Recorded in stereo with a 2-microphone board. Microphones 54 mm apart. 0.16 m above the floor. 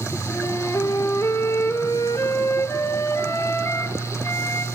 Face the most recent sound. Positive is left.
turn(degrees=65)  # may be behind; listen again after turning